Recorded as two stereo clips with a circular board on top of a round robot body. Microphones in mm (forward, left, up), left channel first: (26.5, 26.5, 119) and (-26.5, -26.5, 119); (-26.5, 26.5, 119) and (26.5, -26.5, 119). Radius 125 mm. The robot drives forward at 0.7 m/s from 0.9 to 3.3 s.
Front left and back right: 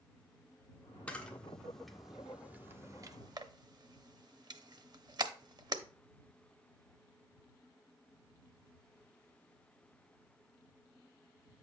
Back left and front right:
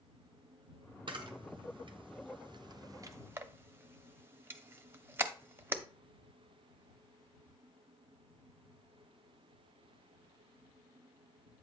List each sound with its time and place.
1.1 s a camera shutter: 30° right, 1.6 m; by 5.8 s 105° right, 0.8 m